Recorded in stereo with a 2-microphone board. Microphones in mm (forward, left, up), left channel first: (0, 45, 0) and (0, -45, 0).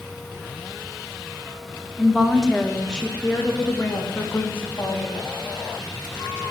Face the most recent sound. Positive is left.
turn(degrees=35)  # may be behind; listen again after turning